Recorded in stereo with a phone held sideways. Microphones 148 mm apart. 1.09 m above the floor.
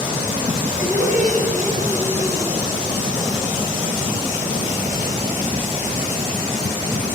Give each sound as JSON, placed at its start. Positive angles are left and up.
{"t": 0.8, "sound": "laughter", "side_deg": 65, "distance_m": 7.0}